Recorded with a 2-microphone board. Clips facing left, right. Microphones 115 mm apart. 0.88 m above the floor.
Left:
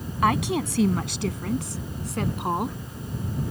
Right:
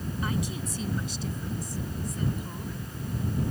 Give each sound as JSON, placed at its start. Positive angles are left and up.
{"t": 0.2, "sound": "a woman speaking", "side_deg": 75}